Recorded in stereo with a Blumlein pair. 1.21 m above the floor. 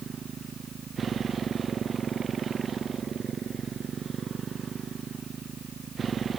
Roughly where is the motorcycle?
Ahead.